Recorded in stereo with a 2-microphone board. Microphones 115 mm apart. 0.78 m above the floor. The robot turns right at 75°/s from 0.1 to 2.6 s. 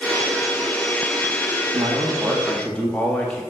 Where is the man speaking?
50° right, 1.5 m; by 3.4 s 15° left, 1.5 m.